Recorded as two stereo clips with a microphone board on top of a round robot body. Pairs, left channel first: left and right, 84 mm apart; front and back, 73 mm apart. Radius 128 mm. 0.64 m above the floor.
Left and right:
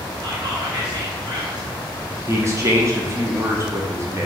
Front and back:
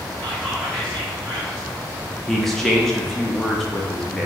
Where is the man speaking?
85° right, 0.9 m.